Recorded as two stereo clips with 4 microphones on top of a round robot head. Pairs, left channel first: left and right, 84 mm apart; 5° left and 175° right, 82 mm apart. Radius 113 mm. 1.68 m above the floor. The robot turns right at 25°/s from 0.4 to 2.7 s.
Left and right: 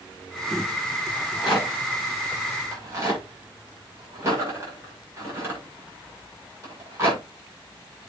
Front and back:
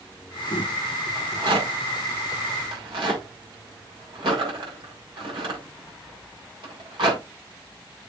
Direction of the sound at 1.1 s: 175° left.